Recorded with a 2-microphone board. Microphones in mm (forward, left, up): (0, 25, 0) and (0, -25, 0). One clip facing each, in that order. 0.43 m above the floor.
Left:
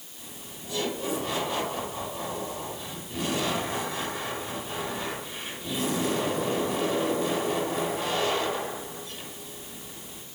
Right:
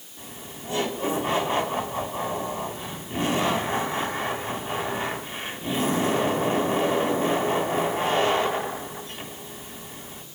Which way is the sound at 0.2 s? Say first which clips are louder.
Right 5 dB; 40° right (ahead or behind).